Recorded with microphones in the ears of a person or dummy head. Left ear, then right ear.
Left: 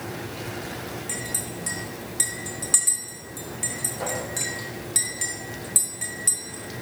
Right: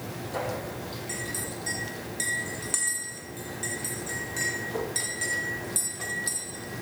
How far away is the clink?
About 1.2 m.